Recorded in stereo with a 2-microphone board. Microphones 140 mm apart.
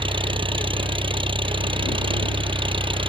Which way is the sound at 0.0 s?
35° right (ahead or behind).